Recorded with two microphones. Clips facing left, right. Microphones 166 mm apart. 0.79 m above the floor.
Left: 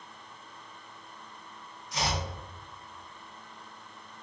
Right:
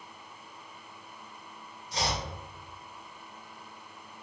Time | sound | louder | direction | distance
1.9 | chopping | even | 30° right (ahead or behind) | 1.0 m